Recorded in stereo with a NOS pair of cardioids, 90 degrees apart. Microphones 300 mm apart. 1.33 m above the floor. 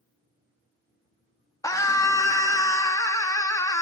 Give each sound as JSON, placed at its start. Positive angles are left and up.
{"t": 1.6, "sound": "a scream", "azimuth_deg": 10, "distance_m": 2.0}